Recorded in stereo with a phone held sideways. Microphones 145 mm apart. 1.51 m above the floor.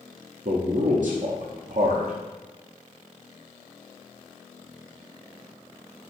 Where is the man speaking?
65° right (ahead or behind), 0.5 m.